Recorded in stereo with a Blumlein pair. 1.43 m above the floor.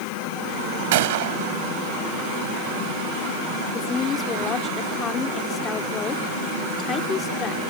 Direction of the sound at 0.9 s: 55° right.